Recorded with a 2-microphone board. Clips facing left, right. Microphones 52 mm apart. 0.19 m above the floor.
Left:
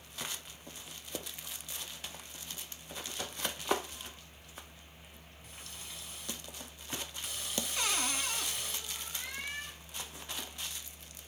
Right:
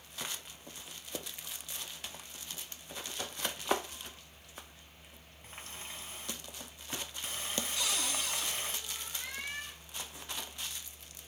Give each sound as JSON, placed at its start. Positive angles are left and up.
{"t": 5.4, "sound": "a running tap", "side_deg": -35, "distance_m": 0.9}
{"t": 7.8, "sound": "a cupboard door", "side_deg": 40, "distance_m": 0.8}